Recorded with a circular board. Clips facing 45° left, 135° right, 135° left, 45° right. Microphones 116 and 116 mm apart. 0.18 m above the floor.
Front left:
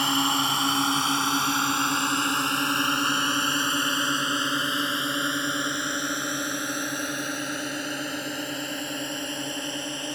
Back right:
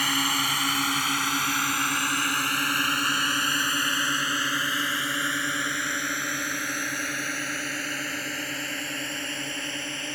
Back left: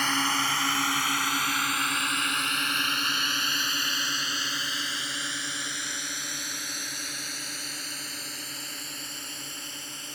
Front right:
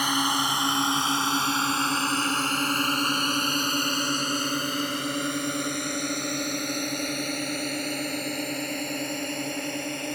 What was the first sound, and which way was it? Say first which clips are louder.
A drone: front left 3 dB, front right 2 dB; 20° left.